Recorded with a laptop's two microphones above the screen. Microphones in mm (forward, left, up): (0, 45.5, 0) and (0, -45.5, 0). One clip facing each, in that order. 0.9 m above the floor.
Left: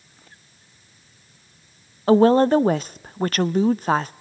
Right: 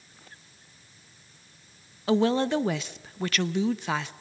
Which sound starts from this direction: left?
A woman speaking, at 2.1 s.